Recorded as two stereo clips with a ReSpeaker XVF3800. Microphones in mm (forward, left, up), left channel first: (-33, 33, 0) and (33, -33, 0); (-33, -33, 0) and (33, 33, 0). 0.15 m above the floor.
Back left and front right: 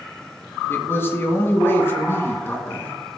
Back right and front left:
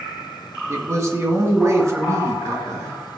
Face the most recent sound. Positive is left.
turn(degrees=85)